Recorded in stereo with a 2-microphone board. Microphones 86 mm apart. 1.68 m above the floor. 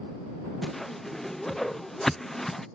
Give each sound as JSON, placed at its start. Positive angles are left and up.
{"t": 0.6, "sound": "a whoosh", "side_deg": 5}